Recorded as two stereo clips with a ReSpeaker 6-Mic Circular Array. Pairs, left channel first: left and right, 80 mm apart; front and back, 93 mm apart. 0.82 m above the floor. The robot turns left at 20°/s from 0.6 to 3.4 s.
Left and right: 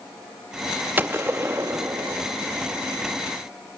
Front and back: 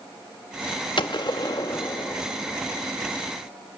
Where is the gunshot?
25° right, 0.8 m; by 2.2 s 50° right, 0.8 m.